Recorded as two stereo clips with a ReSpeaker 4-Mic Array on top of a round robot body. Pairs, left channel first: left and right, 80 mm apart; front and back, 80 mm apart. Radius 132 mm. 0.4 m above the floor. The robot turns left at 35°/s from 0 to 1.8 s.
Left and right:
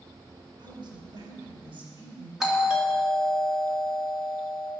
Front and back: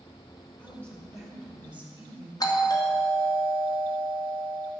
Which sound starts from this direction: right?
A man speaking, at 0.6 s.